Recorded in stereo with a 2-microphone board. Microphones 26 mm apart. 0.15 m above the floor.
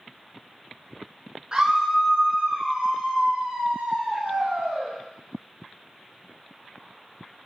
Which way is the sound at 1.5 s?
30° right (ahead or behind).